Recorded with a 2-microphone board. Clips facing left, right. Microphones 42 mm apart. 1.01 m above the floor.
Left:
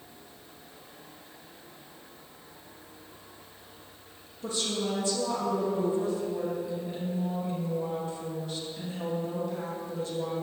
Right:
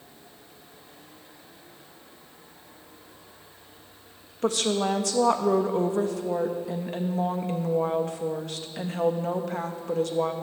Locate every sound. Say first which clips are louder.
4.4 s a woman speaking: right 7 dB; 65° right (ahead or behind), 1.1 m